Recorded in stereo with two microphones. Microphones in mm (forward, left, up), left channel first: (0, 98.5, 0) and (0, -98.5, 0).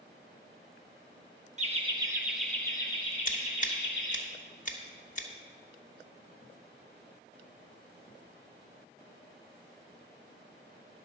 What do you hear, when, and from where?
1.6 s laughter: 35° right (ahead or behind), 0.8 m; by 4.2 s 55° left (ahead or behind), 1.2 m
3.2 s scissors: 40° left (ahead or behind), 1.2 m